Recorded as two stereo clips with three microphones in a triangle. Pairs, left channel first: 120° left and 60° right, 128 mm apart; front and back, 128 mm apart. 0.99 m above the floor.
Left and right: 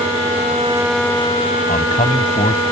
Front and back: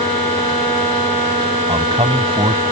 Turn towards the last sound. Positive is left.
turn(degrees=135)